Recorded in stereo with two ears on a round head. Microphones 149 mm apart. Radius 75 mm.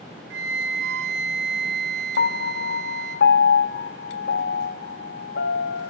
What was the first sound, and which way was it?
A flute, 75° right (ahead or behind).